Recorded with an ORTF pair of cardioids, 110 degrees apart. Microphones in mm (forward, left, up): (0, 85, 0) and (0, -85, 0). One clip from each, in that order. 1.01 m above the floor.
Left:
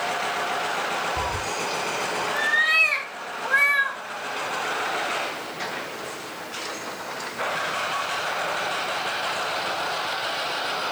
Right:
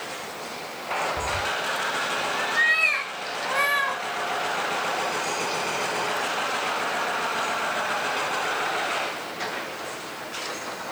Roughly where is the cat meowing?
Ahead left.